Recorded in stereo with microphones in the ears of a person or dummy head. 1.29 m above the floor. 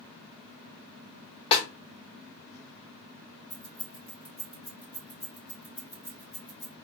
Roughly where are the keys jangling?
Left.